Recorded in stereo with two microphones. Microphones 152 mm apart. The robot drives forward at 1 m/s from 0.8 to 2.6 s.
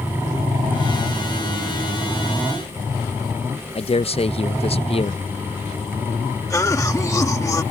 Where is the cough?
20° left (ahead or behind).